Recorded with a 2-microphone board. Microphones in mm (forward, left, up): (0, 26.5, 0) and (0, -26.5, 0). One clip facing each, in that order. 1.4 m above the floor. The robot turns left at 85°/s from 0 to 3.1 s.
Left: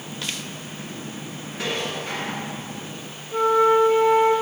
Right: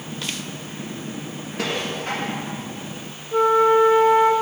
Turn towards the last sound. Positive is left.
turn(degrees=-10)  # may be behind; listen again after turning